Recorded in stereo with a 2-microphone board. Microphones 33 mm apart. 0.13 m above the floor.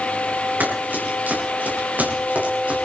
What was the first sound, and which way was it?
Running footsteps, 75° right (ahead or behind).